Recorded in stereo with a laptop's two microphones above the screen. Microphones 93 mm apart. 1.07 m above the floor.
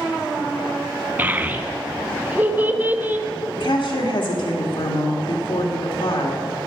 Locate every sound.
1.2 s a child speaking: 20° right (ahead or behind), 0.7 m
3.6 s a woman speaking: 60° left (ahead or behind), 1.8 m